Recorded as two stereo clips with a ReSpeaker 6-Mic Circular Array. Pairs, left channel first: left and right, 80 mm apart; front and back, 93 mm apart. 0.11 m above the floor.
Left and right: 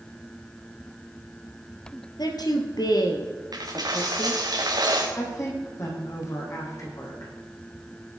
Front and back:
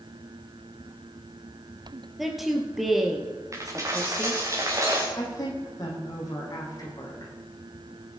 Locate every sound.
2.2 s a woman speaking: 90° left, 2.5 m
3.5 s a dropped coin: 125° right, 3 m
5.2 s a woman speaking: 45° left, 5 m